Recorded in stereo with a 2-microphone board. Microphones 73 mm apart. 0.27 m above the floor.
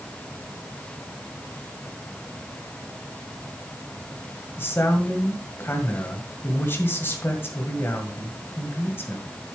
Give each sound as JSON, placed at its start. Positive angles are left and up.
{"t": 4.6, "sound": "a man speaking", "side_deg": 35, "distance_m": 1.7}